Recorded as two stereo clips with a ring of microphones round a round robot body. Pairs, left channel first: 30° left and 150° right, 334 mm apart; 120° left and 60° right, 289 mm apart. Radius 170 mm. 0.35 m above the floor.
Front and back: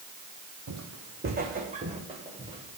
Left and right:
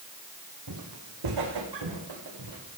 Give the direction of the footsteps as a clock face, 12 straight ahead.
3 o'clock.